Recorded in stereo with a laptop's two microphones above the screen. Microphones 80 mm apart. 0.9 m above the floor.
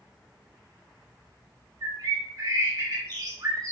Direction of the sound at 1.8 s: 45° right (ahead or behind).